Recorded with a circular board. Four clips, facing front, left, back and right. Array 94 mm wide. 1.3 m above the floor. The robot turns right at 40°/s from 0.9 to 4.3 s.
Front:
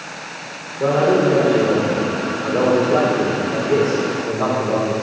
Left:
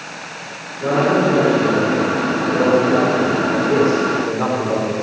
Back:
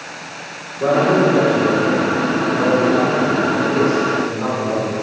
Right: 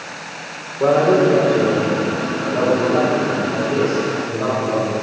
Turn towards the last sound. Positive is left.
turn(degrees=70)